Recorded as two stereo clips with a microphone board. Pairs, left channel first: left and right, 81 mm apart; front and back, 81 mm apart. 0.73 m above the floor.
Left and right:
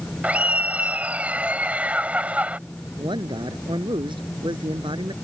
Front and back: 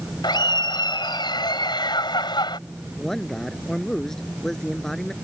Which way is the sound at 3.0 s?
85° right.